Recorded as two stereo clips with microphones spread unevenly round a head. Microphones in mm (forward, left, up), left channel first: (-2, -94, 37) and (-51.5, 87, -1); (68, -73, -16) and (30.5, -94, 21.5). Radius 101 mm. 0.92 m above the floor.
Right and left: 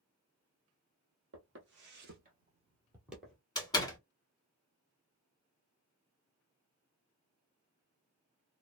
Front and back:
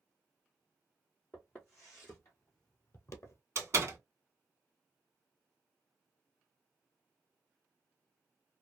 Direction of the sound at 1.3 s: 130° left.